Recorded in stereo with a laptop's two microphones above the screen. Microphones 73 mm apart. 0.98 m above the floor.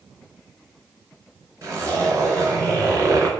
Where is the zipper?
40° right (ahead or behind), 3.5 m.